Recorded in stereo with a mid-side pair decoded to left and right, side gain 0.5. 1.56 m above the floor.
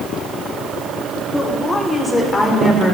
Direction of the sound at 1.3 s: 25° left.